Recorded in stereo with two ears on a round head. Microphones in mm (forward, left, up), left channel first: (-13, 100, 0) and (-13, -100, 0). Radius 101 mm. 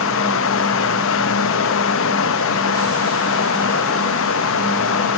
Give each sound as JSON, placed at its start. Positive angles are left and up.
{"t": 0.0, "sound": "running water", "side_deg": 60, "distance_m": 1.1}